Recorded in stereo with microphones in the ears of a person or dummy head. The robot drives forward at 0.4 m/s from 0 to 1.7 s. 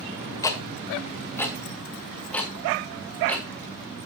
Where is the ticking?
20° left (ahead or behind), 0.9 m; by 3.5 s 10° left (ahead or behind), 1.4 m.